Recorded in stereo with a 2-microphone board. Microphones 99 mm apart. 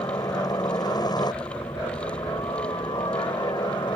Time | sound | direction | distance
0.0 | a helicopter | 45° left (ahead or behind) | ?